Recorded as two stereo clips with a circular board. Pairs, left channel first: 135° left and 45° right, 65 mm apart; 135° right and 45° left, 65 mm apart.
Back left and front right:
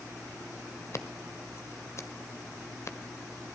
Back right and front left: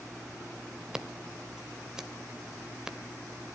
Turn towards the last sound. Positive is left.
turn(degrees=120)